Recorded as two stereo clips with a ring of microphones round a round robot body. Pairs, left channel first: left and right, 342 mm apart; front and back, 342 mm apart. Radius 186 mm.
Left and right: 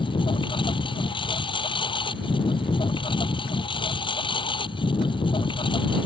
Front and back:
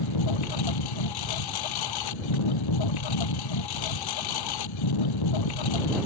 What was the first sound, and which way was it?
A lawn mower, 15° left.